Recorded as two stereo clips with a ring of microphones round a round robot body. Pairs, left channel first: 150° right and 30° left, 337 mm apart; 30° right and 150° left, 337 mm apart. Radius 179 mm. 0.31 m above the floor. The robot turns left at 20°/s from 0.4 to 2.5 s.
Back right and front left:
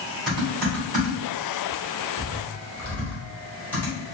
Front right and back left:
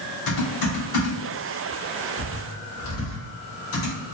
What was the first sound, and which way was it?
Typing on a keyboard, 25° right.